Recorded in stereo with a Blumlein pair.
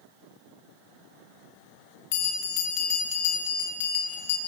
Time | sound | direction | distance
2.1 | a bell | 50° left | 2.5 m